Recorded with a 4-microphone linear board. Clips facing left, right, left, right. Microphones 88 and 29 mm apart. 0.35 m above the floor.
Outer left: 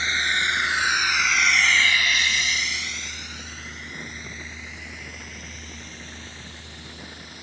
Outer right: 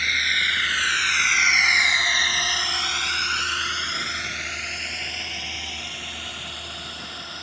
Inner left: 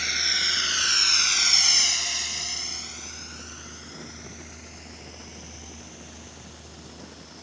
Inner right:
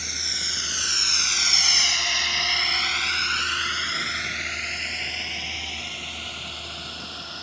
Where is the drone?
25° left (ahead or behind); by 7.4 s 60° right (ahead or behind).